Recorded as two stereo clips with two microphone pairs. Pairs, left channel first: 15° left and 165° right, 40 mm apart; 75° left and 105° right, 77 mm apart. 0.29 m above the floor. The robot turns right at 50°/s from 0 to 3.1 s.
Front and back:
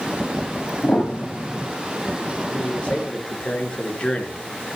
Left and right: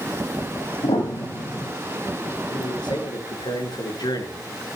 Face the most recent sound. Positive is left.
turn(degrees=80)